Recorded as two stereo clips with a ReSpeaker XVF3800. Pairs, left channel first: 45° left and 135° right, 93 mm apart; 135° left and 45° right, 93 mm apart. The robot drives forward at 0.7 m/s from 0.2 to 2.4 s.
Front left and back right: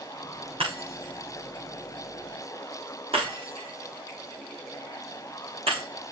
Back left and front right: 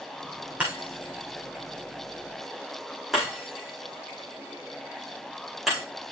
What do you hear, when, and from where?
0.6 s breaking glass: 120° right, 6 m; by 5.8 s 130° right, 6.5 m